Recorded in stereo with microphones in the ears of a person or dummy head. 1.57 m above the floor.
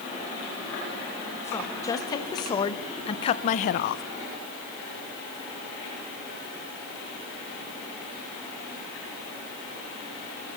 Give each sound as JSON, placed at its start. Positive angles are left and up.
{"t": 1.4, "sound": "a woman speaking", "side_deg": 20, "distance_m": 2.5}